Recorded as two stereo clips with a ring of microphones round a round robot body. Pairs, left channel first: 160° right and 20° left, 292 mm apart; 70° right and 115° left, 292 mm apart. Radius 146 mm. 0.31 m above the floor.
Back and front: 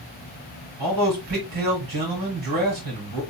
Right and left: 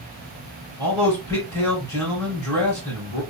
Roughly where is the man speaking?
Ahead.